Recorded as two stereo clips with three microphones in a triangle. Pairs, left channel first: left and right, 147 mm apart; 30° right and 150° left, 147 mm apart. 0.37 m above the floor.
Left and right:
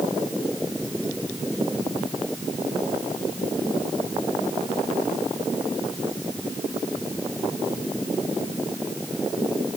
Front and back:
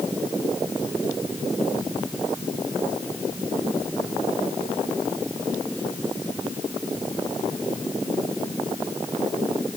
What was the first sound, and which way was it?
Only background noise.